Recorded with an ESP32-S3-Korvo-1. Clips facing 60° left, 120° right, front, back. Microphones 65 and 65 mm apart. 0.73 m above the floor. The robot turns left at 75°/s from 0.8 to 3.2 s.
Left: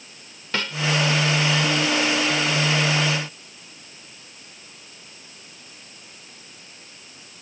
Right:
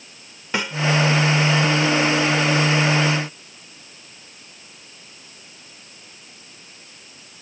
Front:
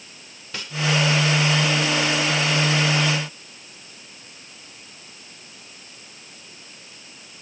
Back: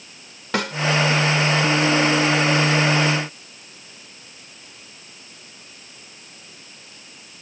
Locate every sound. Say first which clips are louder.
0.5 s a snare drum: right 2 dB, back 12 dB; 165° left